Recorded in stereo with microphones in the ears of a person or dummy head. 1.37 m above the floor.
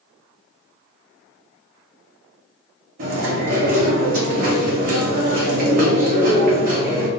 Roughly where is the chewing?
Right.